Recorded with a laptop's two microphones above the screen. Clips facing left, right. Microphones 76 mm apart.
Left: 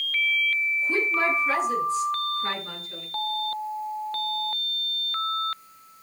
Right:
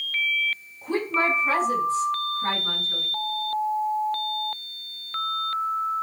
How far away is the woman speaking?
About 6.5 m.